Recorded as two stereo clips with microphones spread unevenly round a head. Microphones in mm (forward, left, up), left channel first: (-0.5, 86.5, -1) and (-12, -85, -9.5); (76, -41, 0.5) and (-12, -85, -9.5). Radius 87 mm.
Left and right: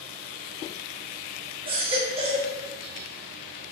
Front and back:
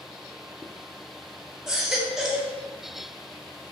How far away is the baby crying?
About 1.0 m.